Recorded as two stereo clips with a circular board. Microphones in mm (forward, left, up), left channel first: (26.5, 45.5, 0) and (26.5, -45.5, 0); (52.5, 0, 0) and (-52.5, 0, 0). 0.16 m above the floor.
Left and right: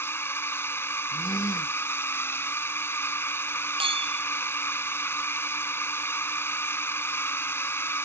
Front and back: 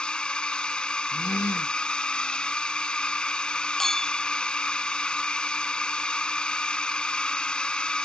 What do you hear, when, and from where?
0.0 s a drone: 70° left
1.1 s a gasp: 55° left
3.8 s a clink: 85° right